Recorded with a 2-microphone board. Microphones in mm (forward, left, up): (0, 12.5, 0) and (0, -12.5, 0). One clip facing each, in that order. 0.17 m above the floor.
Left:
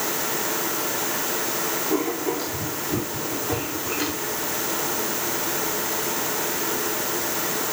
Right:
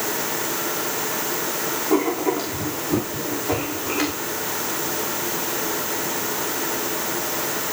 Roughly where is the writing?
Right.